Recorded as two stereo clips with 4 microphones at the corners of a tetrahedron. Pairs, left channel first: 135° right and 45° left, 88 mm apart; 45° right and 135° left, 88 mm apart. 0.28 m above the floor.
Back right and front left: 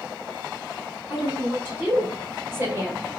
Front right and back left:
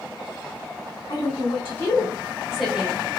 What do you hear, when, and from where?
1.1 s a woman speaking: 25° right, 2.0 m; by 3.0 s 70° left, 1.6 m